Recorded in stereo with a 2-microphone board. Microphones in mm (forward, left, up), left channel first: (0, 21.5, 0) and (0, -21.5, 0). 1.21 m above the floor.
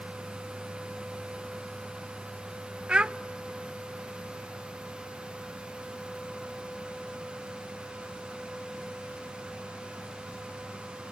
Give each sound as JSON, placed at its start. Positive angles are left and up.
{"t": 2.9, "sound": "a child speaking", "side_deg": -20, "distance_m": 0.6}